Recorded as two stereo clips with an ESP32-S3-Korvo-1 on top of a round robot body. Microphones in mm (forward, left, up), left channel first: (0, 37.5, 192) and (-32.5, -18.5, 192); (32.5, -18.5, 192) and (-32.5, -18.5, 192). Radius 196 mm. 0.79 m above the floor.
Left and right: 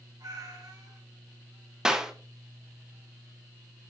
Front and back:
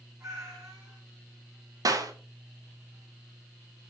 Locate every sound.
0.2 s a cat meowing: 135° right, 4.5 m
1.9 s a clap: 160° left, 1.5 m